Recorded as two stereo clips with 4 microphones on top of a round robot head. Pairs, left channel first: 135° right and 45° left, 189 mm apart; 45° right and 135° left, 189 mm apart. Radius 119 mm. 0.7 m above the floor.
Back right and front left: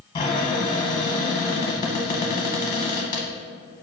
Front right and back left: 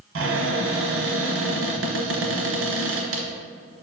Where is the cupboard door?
155° left, 0.7 m.